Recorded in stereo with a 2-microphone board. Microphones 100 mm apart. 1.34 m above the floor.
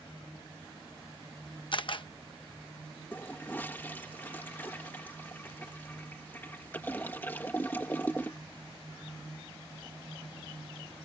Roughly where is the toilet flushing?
Centre.